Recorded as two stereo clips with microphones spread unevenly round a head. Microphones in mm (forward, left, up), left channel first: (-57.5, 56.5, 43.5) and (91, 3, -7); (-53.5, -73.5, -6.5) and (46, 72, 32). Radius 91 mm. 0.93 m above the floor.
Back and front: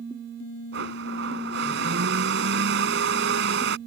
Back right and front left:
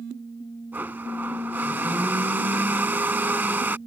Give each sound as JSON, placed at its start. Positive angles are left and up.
{"t": 0.7, "sound": "a blender", "azimuth_deg": -25}